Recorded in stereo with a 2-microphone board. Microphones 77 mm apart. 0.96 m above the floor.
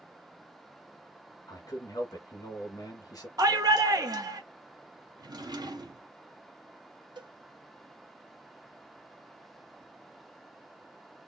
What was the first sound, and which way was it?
A man speaking, 55° left (ahead or behind).